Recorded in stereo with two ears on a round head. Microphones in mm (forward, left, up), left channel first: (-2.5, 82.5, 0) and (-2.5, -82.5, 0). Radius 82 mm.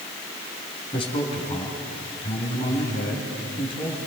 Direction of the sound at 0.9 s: 30° left (ahead or behind).